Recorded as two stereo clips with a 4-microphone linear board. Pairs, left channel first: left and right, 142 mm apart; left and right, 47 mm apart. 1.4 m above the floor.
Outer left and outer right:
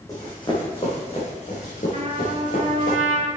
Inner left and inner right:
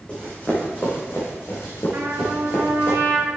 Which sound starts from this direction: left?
Running footsteps, at 0.1 s.